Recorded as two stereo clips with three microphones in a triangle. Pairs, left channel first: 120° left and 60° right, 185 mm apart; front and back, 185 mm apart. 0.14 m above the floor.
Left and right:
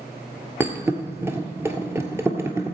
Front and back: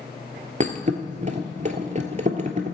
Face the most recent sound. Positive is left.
turn(degrees=-135)